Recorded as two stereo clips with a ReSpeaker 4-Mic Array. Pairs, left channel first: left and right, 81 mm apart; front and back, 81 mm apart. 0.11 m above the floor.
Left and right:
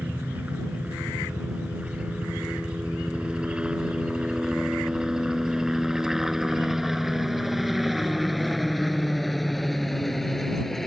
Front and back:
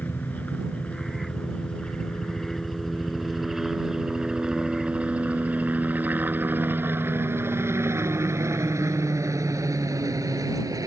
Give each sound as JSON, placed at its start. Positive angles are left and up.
{"t": 0.0, "sound": "a helicopter", "azimuth_deg": -40}